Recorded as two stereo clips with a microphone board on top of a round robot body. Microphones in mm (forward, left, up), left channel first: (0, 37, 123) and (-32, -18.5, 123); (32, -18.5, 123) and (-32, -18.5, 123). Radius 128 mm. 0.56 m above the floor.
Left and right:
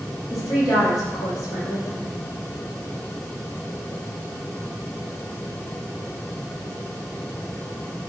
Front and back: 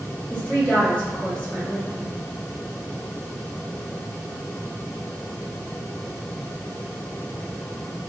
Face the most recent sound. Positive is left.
turn(degrees=70)